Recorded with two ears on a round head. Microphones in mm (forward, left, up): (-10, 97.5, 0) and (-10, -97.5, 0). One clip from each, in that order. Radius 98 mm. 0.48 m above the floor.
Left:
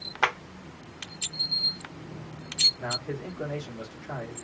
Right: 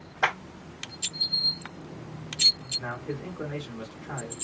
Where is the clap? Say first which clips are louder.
Even; 40° left (ahead or behind), 1.4 m.